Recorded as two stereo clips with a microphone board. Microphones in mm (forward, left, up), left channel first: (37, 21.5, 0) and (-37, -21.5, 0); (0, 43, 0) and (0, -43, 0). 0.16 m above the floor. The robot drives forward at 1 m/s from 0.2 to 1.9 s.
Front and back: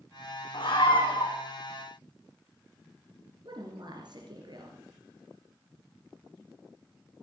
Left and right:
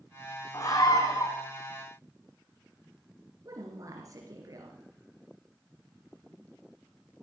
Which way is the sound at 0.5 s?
45° left.